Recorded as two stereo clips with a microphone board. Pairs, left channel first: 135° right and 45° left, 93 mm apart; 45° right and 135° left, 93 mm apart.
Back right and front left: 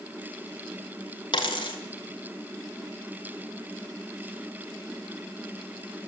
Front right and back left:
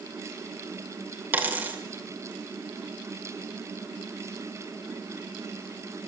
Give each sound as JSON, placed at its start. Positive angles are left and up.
{"t": 1.3, "sound": "a dropped coin", "azimuth_deg": -155, "distance_m": 2.0}